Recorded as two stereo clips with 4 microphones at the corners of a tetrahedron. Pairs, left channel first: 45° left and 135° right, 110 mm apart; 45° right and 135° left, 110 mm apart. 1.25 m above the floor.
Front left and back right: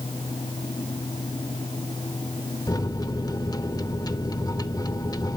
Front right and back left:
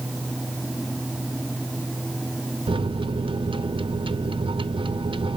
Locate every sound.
2.7 s a microwave: 95° left, 0.6 m